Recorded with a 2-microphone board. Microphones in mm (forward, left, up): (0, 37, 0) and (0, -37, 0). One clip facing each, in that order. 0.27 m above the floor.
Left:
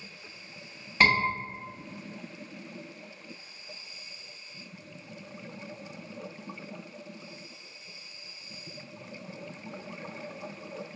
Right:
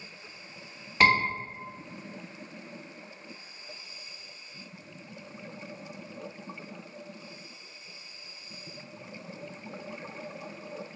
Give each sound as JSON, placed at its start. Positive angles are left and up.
{"t": 1.0, "sound": "a scream", "side_deg": -5, "distance_m": 2.0}